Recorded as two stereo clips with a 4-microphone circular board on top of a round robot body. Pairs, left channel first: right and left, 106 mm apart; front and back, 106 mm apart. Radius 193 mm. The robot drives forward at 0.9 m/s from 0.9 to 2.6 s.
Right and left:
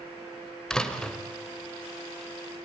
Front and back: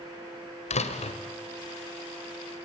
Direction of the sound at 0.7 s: 5° right.